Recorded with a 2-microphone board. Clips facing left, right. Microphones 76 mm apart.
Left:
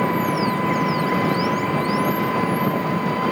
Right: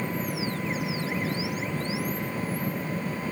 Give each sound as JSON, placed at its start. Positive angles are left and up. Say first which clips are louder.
{"t": 0.0, "sound": "an engine running", "louder": "left 11 dB", "side_deg": 85}